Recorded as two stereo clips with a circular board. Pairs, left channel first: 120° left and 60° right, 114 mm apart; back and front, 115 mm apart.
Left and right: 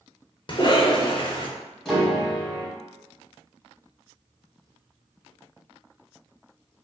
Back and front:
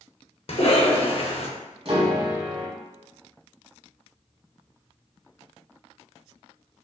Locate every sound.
0.5 s a cough: 160° left, 0.9 m
1.9 s a piano: 35° left, 1.2 m